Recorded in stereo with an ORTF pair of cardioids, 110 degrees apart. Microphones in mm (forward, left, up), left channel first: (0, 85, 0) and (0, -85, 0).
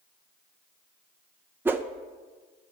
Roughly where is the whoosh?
Ahead.